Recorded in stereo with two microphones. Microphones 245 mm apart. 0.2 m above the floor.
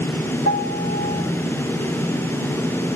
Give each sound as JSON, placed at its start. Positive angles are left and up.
{"t": 0.5, "sound": "a piano", "side_deg": -70, "distance_m": 4.5}